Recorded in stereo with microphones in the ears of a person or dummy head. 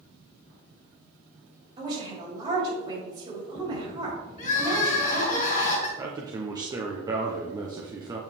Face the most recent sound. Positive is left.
turn(degrees=-25)  # may be behind; listen again after turning